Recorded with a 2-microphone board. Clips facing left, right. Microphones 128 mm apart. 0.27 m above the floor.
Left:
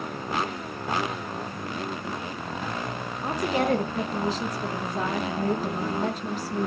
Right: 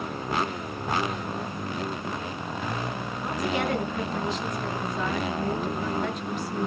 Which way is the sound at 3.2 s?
35° left (ahead or behind).